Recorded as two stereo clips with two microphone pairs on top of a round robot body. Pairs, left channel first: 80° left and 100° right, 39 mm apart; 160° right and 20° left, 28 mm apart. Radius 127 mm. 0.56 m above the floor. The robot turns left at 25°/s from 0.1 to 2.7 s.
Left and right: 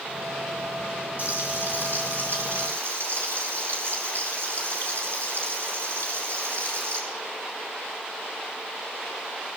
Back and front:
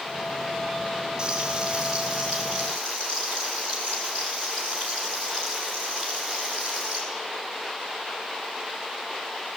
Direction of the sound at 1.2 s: 50° right.